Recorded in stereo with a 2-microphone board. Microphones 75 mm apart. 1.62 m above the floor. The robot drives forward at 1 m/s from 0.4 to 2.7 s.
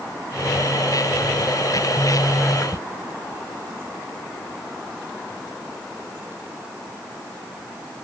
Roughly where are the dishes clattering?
No dishes clattering in this recording.